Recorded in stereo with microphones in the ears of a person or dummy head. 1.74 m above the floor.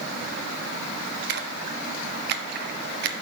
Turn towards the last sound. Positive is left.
turn(degrees=-60)  # may be behind; listen again after turning